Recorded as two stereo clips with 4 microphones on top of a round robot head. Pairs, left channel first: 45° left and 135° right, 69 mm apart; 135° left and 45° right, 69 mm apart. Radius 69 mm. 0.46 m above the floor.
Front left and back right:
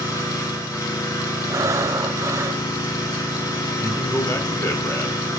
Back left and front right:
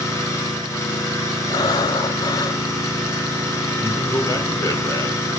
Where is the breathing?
175° left, 0.6 m.